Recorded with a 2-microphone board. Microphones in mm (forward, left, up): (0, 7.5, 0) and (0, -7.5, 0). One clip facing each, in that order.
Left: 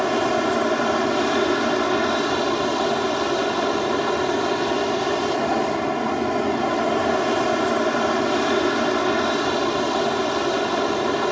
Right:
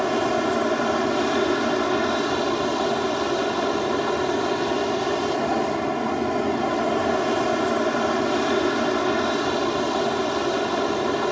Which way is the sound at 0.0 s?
15° left (ahead or behind).